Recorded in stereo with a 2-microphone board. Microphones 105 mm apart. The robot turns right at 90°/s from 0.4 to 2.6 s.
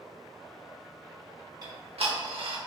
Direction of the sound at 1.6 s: 40° right (ahead or behind).